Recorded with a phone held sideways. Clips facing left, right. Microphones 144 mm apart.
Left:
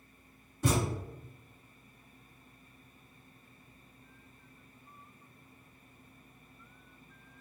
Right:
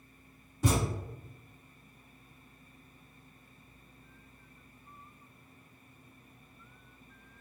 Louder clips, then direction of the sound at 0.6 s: Even; 10° right (ahead or behind).